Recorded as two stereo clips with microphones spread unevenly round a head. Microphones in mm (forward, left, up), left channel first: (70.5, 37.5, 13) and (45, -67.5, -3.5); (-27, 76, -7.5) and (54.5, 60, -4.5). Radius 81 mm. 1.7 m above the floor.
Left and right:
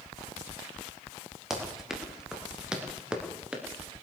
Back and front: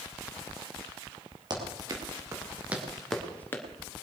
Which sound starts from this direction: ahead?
Running footsteps, at 1.5 s.